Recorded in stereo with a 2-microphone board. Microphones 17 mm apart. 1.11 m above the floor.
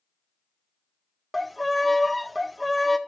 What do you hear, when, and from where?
1.3 s a violin: 5° left (ahead or behind), 0.5 m